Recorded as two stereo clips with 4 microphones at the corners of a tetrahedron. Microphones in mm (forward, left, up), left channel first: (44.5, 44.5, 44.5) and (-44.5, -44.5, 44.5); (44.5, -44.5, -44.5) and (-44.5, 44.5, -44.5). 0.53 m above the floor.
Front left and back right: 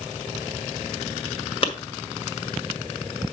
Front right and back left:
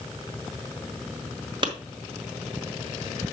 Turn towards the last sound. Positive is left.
turn(degrees=85)